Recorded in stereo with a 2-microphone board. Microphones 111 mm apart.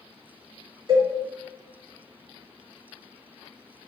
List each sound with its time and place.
0.9 s a cowbell: 50° right (ahead or behind), 2.0 m